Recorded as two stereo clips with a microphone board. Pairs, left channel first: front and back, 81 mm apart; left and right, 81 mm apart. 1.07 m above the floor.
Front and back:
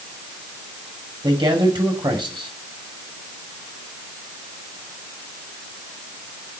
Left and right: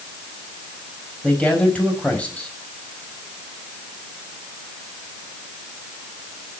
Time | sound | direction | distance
1.2 | a man speaking | 165° left | 6 m